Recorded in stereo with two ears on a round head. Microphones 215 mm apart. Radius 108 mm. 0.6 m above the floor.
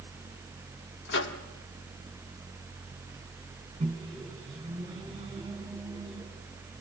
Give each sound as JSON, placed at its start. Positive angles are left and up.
{"t": 1.1, "sound": "a microwave", "side_deg": 50, "distance_m": 1.4}
{"t": 3.8, "sound": "a microwave", "side_deg": -20, "distance_m": 4.0}